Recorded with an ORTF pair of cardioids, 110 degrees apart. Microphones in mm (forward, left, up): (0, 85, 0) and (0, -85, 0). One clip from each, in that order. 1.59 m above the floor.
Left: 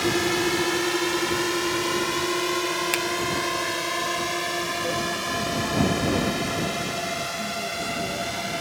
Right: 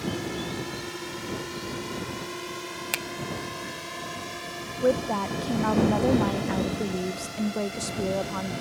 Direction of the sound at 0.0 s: 70° left.